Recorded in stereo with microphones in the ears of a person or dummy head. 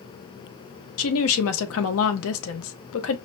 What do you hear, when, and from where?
1.0 s a woman speaking: 80° left, 0.7 m